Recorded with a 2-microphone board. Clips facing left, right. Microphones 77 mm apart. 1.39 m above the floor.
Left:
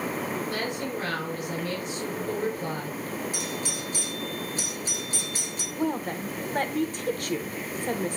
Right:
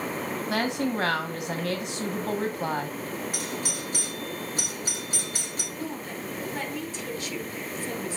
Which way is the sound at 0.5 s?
75° right (ahead or behind).